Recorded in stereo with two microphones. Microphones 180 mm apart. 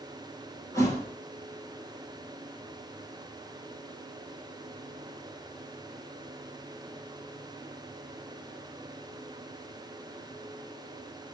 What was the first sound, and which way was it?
A thud, 20° left (ahead or behind).